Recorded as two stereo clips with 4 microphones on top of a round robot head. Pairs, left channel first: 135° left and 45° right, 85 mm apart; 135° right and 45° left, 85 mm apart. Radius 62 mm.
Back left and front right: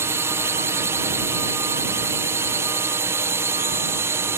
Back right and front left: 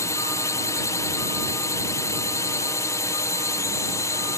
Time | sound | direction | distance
0.0 | a drone | 95° right | ?